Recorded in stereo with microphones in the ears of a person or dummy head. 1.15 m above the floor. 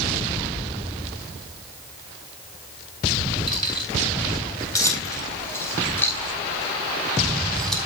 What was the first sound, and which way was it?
Keys jangling, 20° left (ahead or behind).